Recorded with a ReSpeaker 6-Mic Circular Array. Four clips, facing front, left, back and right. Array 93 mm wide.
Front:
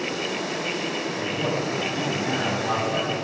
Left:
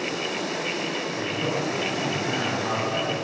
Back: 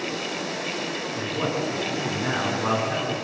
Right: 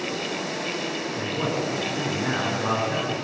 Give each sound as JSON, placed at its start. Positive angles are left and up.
{"t": 1.1, "sound": "a man speaking", "azimuth_deg": -160, "distance_m": 10.0}